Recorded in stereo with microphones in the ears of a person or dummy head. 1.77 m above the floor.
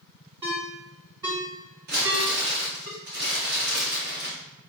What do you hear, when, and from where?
0.4 s a ringtone: 25° right (ahead or behind), 1.4 m
1.9 s crumpling: 60° right (ahead or behind), 1.5 m